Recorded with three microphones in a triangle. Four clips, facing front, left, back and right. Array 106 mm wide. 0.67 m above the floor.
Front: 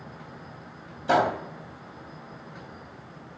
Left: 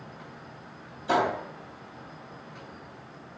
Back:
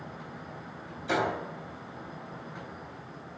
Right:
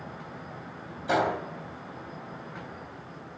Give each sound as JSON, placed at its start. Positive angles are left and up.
{"t": 1.1, "sound": "a gunshot", "azimuth_deg": 0, "distance_m": 2.5}